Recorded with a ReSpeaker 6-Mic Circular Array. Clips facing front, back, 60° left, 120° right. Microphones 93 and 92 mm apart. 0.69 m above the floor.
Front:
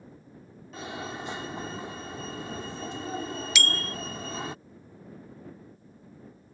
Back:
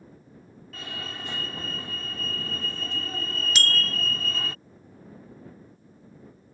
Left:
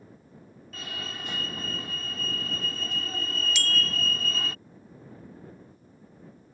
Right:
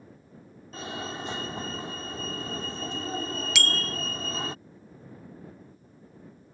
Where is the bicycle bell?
130° right.